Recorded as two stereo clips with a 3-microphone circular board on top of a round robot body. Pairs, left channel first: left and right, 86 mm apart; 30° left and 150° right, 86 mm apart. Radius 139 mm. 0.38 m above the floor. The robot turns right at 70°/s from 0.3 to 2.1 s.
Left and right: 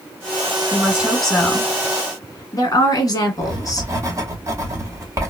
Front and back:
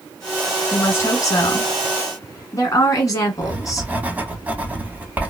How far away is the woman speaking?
About 1.8 m.